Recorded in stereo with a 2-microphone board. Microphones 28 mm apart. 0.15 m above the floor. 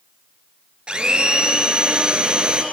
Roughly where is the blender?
Right.